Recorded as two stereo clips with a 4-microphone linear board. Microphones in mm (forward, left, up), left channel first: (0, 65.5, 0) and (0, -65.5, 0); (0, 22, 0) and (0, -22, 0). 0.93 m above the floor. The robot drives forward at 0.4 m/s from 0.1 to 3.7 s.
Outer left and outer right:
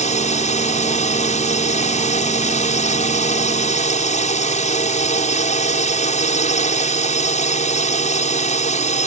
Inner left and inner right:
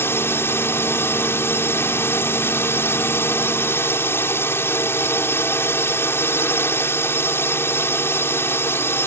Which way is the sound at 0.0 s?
65° left (ahead or behind).